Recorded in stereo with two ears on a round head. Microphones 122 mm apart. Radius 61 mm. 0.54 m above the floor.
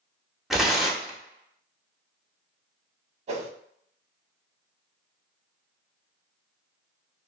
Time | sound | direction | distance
0.5 | tearing paper | 5° right (ahead or behind) | 0.7 m
3.3 | a whoosh | 45° right (ahead or behind) | 0.5 m